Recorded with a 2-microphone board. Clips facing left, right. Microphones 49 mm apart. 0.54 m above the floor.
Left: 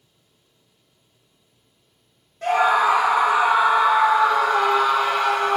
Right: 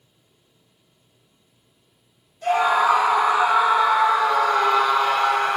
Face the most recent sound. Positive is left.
turn(degrees=0)  # may be behind; listen again after turning